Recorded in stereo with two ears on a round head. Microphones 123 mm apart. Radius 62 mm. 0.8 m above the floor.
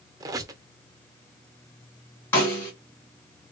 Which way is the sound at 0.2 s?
25° right (ahead or behind).